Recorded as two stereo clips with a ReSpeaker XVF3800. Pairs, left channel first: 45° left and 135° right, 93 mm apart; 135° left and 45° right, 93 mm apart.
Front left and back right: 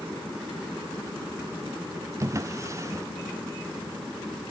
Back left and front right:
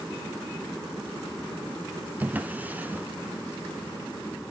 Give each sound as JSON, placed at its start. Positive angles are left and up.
{"t": 2.2, "sound": "a drawer", "azimuth_deg": -105, "distance_m": 0.5}